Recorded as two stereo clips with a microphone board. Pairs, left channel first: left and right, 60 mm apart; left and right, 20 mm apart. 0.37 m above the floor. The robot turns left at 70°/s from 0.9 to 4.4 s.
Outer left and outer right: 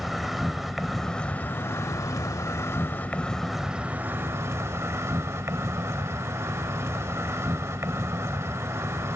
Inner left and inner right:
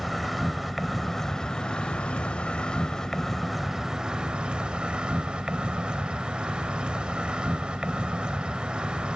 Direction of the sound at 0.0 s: 175° right.